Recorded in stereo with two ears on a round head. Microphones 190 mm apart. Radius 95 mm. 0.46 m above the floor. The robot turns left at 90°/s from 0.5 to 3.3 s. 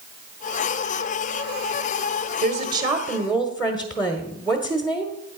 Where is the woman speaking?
95° right, 1.1 m; by 5.2 s 175° right, 1.1 m.